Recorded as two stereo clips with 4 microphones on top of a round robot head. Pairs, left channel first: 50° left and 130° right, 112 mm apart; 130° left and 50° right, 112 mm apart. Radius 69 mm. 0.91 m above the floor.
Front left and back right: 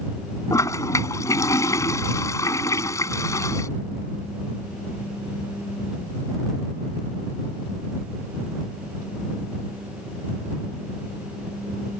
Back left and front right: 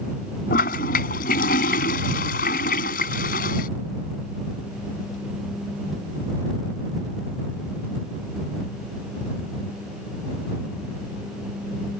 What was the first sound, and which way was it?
A toilet flushing, 115° left.